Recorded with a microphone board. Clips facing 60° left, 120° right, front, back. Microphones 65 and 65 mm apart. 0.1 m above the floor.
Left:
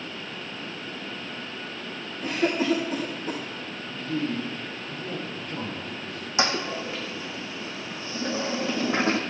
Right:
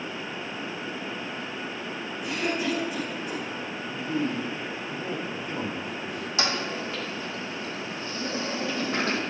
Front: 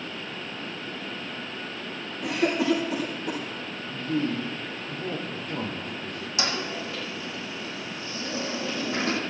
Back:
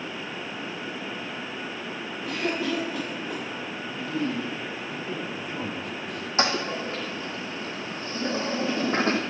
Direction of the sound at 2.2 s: 5° left.